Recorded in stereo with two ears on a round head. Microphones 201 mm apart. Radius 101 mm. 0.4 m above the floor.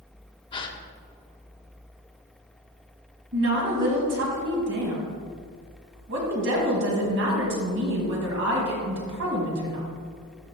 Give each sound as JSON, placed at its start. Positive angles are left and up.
{"t": 0.5, "sound": "a gasp", "side_deg": 20, "distance_m": 0.6}
{"t": 3.3, "sound": "a woman speaking", "side_deg": -60, "distance_m": 2.5}